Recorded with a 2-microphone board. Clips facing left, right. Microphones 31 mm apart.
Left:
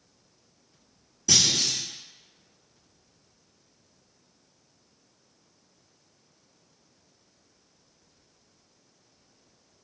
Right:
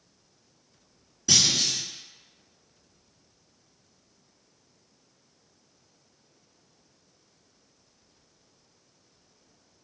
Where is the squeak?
No squeak in this recording.